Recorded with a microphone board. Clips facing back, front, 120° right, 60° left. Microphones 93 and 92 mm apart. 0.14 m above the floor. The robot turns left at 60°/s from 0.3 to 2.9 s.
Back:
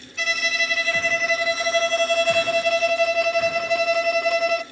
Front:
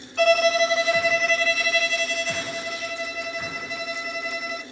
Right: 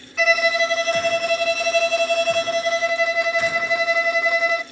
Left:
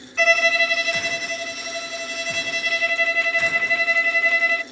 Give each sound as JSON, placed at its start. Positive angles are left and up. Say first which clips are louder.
{"t": 0.2, "sound": "a violin", "louder": "front 10 dB, right 1 dB", "azimuth_deg": -35, "distance_m": 0.7}